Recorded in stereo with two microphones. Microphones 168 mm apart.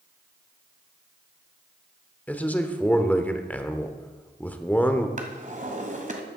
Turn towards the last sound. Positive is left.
turn(degrees=-45)  # may be behind; listen again after turning